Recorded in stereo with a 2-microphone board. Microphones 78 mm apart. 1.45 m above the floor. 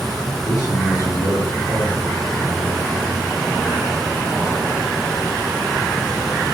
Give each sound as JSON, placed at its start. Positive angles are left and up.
{"t": 0.5, "sound": "a man speaking", "side_deg": 45, "distance_m": 4.5}